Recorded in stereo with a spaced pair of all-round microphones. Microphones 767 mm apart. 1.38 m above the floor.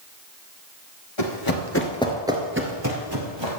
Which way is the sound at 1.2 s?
35° left (ahead or behind).